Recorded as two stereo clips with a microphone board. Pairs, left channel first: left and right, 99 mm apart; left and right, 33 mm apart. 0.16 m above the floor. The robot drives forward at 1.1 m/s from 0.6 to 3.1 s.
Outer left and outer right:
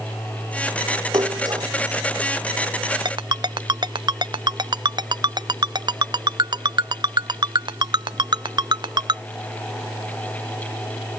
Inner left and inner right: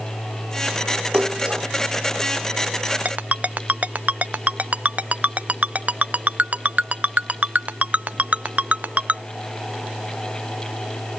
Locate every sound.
1.1 s a splash: 40° right (ahead or behind); by 1.7 s 45° right (ahead or behind)
3.0 s a ringtone: 55° right (ahead or behind)